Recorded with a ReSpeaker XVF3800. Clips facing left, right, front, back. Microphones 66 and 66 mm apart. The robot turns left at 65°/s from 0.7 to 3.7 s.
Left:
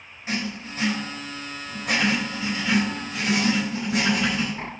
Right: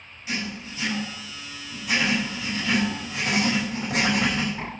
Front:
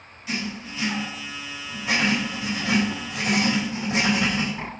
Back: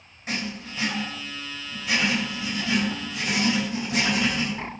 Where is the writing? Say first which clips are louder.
Left 2 dB, front 1 dB; 135° left, 4.5 m; by 4.5 s 60° right, 4.5 m.